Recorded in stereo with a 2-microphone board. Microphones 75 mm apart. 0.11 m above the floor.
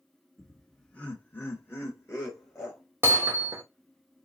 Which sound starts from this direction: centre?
Laughter, at 0.4 s.